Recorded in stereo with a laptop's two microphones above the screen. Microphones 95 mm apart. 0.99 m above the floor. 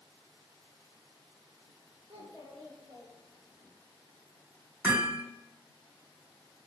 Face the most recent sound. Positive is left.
turn(degrees=-20)  # may be behind; listen again after turning